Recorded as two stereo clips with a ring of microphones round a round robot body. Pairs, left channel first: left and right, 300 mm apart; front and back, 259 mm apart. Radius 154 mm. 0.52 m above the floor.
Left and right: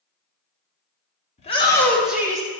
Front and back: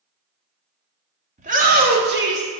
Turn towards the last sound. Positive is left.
turn(degrees=-160)